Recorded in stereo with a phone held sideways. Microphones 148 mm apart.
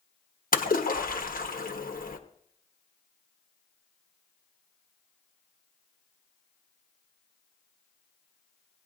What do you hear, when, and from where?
0.5 s a splash: 70° left (ahead or behind), 1.2 m